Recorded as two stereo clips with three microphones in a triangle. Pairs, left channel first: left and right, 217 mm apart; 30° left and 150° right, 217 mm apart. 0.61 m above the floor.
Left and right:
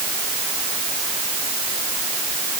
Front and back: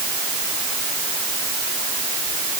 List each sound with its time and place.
Only background noise.